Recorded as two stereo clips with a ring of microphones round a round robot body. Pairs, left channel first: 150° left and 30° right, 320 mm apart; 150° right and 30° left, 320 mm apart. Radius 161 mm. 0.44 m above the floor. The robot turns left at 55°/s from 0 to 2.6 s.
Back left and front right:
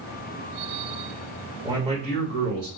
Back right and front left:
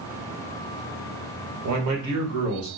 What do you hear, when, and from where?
1.6 s a man speaking: 50° left, 1.5 m; by 2.7 s straight ahead, 1.5 m